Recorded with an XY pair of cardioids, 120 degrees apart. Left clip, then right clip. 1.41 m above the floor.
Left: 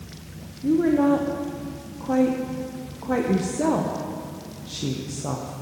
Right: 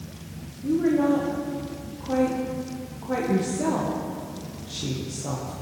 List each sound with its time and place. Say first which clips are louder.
0.6 s a woman speaking: left 2 dB; 30° left, 0.9 m